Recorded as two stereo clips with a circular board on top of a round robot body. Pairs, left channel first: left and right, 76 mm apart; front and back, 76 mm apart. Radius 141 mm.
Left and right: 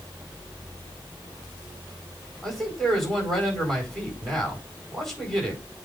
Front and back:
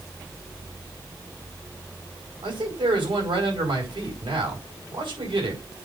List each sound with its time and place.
2.4 s a man speaking: 175° left, 5 m